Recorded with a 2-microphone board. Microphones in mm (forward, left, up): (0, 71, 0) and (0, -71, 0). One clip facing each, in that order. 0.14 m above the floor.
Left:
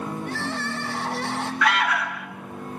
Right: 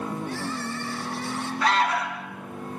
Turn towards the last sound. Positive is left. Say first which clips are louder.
# right 1 dB
turn(degrees=-30)  # may be behind; listen again after turning